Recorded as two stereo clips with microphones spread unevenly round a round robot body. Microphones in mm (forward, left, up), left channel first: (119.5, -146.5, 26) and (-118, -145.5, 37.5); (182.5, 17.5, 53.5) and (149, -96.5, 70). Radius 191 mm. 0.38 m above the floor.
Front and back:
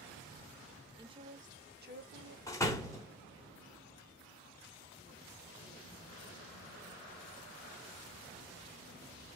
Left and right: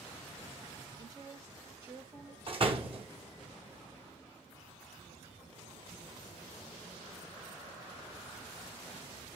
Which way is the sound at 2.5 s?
70° right.